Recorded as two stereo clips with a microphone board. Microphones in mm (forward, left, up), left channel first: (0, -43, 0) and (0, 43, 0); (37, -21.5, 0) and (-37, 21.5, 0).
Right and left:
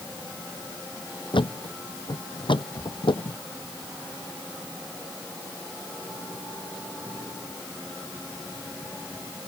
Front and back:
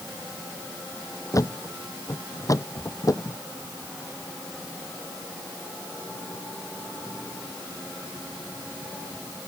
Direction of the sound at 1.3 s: 80° right.